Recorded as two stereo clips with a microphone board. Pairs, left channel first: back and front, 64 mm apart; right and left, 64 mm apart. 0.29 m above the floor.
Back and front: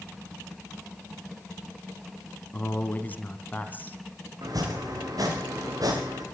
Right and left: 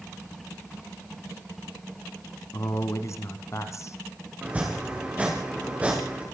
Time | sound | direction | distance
2.5 | a man speaking | 120° right | 2.5 m
4.4 | chopping | 20° left | 6.5 m